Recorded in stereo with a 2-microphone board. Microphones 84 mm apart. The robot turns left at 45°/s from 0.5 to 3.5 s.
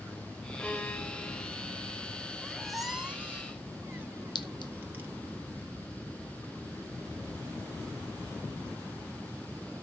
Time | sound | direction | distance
0.6 | a violin | 170° left | 1.9 m
2.4 | a squeak | 10° left (ahead or behind) | 1.4 m
4.3 | a clink | 60° left (ahead or behind) | 1.0 m